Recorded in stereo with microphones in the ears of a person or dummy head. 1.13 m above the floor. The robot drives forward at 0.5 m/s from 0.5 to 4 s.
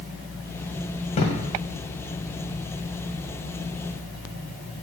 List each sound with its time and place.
1.1 s a thud: 35° left (ahead or behind), 1.7 m; by 1.4 s 30° left (ahead or behind), 1.8 m